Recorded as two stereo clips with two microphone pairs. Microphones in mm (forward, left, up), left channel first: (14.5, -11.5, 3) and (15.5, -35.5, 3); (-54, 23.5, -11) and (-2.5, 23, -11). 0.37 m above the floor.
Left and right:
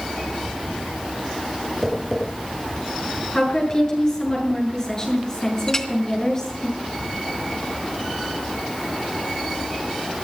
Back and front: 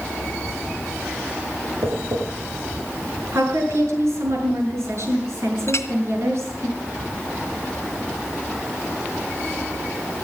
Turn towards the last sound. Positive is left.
turn(degrees=155)